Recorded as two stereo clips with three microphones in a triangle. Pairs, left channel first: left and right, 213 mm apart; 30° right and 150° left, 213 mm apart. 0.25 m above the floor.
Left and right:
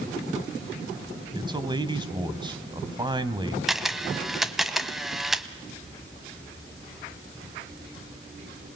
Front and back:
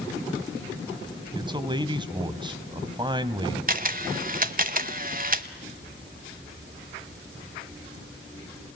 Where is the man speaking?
150° right, 1.4 m.